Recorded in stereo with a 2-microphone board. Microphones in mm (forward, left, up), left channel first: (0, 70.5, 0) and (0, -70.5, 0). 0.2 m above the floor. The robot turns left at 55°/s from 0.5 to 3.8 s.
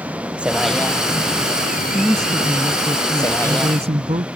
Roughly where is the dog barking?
I don't hear a dog barking.